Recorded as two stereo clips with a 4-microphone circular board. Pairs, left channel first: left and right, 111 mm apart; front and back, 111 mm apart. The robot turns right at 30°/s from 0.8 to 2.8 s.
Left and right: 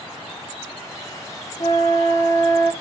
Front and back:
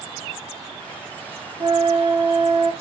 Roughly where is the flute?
Behind left.